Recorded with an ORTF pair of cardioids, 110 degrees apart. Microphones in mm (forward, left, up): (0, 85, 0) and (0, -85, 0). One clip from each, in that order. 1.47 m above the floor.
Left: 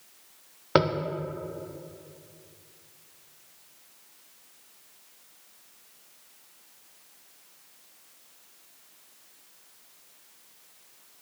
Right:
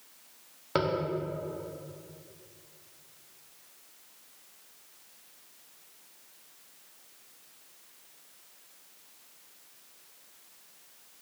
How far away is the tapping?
About 0.7 m.